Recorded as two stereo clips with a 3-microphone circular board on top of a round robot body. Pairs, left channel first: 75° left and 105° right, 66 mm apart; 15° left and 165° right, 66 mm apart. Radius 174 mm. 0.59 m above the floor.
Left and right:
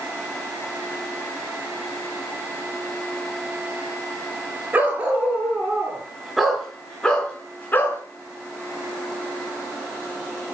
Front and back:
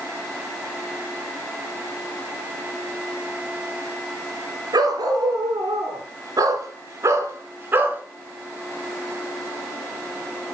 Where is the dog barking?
175° right, 3.5 m; by 8.0 s 135° left, 2.5 m.